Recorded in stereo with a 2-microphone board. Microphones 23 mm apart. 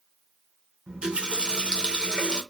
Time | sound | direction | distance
0.9 | a running tap | 45° right (ahead or behind) | 0.6 m